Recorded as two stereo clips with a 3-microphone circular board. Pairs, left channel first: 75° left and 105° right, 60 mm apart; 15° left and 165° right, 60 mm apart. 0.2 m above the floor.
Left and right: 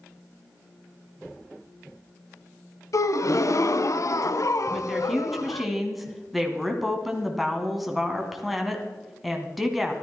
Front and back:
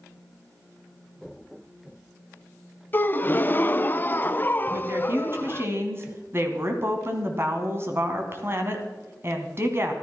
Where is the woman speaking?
165° left, 2 m.